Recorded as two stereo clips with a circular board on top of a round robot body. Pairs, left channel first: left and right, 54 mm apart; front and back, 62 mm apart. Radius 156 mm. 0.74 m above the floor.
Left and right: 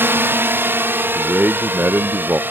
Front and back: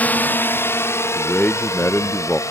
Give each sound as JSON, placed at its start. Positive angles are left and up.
{"t": 0.0, "sound": "a drone", "azimuth_deg": -55}
{"t": 1.1, "sound": "a man speaking", "azimuth_deg": -50}